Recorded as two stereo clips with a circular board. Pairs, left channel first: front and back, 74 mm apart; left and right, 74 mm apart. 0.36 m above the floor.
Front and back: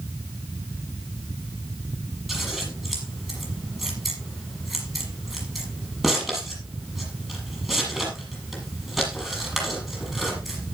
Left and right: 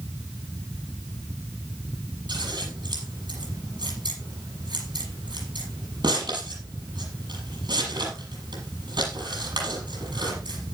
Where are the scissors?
95° right, 7 m.